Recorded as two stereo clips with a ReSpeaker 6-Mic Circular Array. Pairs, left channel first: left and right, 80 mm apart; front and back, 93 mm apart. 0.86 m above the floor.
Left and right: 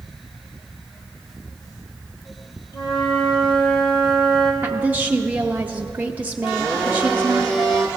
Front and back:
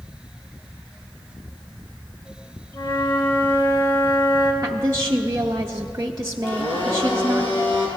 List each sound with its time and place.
2.7 s a flute: 65° left, 2 m
4.6 s a woman speaking: 145° right, 0.5 m
6.5 s a blender: 10° left, 3 m